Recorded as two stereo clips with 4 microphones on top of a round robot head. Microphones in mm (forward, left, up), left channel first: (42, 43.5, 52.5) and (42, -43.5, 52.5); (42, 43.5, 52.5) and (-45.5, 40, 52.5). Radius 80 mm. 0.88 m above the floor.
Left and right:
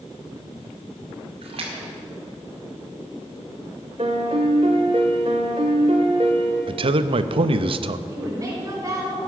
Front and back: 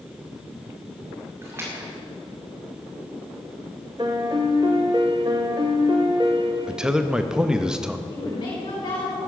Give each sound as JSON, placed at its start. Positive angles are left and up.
{"t": 1.4, "sound": "a splash", "azimuth_deg": -110, "distance_m": 2.0}
{"t": 4.0, "sound": "a piano", "azimuth_deg": -120, "distance_m": 0.7}
{"t": 6.7, "sound": "a man speaking", "azimuth_deg": -95, "distance_m": 0.7}
{"t": 8.1, "sound": "a woman speaking", "azimuth_deg": -40, "distance_m": 5.0}